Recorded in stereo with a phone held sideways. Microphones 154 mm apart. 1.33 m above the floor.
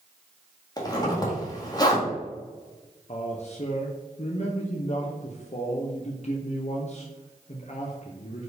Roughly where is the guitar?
No guitar in this recording.